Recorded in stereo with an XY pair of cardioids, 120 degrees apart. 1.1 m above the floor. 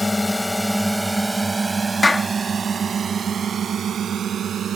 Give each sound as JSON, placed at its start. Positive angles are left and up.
{"t": 0.0, "sound": "a drone", "azimuth_deg": 15}
{"t": 2.0, "sound": "a clap", "azimuth_deg": 15}